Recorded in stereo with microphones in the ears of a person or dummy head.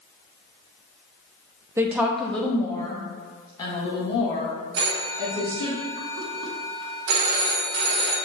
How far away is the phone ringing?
About 1.1 m.